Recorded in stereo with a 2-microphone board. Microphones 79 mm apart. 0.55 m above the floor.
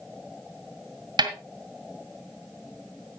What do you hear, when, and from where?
1.2 s a snare drum: 75° right (ahead or behind), 1.9 m